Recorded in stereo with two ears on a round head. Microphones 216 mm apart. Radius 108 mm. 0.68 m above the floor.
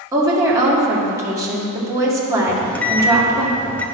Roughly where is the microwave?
Centre.